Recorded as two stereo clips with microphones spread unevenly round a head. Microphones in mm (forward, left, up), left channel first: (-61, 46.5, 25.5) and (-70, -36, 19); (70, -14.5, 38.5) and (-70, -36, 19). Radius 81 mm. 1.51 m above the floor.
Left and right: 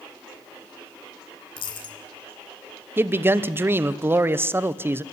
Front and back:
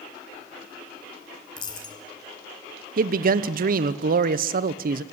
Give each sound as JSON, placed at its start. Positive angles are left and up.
{"t": 1.6, "sound": "a dropped coin", "azimuth_deg": 65, "distance_m": 2.5}
{"t": 3.0, "sound": "a man speaking", "azimuth_deg": -160, "distance_m": 1.1}